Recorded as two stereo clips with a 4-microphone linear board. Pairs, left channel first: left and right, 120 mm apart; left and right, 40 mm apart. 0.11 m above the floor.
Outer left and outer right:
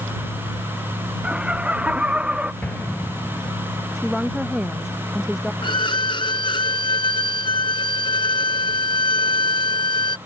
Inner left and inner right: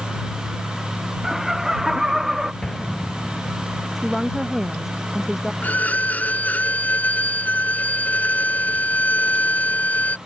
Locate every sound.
1.2 s laughter: 10° right (ahead or behind)
2.6 s an explosion: 10° left (ahead or behind)
4.0 s a woman speaking: 5° right (ahead or behind)
5.6 s a violin: 40° left (ahead or behind)